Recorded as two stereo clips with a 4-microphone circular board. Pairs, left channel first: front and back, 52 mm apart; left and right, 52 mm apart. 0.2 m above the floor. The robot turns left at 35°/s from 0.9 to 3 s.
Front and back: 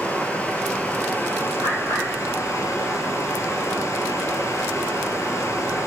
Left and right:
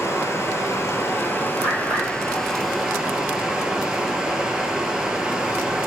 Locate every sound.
0.0 s running water: 60° left, 0.9 m; by 5.9 s 15° right, 0.9 m
1.6 s a bird: 15° right, 2.5 m; by 2.1 s 35° right, 2.5 m